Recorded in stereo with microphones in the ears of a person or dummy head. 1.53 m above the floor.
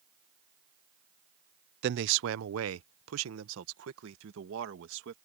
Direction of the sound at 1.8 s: 55° right (ahead or behind).